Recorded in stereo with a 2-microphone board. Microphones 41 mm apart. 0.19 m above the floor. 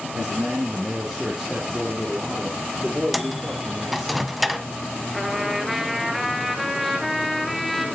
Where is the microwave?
5° right (ahead or behind), 1.0 m.